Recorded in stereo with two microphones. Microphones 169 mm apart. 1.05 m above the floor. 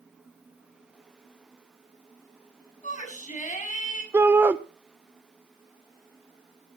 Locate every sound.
2.8 s a shout: 45° left (ahead or behind), 7.5 m
4.1 s a shout: 15° right (ahead or behind), 0.7 m